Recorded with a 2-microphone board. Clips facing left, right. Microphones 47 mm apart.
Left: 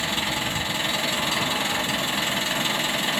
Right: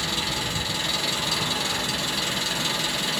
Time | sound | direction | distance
0.0 | an engine running | 30° left (ahead or behind) | 0.7 m